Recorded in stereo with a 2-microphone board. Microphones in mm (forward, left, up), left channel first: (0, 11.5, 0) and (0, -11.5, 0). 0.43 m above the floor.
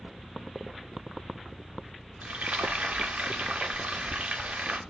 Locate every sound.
2.2 s frying: 75° right (ahead or behind), 0.5 m